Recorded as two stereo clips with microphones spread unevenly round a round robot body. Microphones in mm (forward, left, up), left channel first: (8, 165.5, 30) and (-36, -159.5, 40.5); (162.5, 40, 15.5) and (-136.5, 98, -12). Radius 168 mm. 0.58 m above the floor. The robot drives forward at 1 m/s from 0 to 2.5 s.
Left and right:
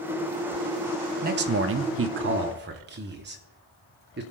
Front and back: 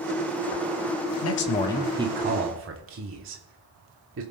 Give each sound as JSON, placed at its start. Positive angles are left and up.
{"t": 1.2, "sound": "a man speaking", "azimuth_deg": -40, "distance_m": 0.9}